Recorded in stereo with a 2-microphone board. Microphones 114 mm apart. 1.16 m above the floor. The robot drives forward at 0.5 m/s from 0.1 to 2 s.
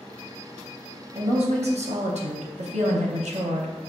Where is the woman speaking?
55° right (ahead or behind), 0.8 m; by 3.7 s 90° right, 0.6 m.